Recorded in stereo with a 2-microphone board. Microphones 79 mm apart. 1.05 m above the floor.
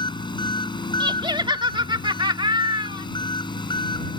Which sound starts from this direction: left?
An engine running, at 0.0 s.